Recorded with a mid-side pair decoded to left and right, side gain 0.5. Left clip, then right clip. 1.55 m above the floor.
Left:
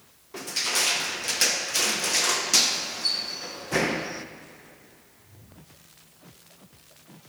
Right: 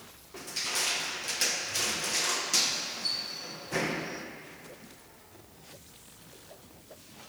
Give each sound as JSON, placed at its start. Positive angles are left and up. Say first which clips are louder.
{"t": 0.3, "sound": "crushing", "louder": "left 6 dB", "azimuth_deg": 40, "distance_m": 1.3}